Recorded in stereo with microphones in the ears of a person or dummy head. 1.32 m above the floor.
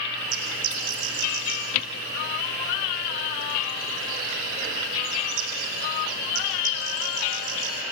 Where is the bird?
40° right (ahead or behind), 4 m.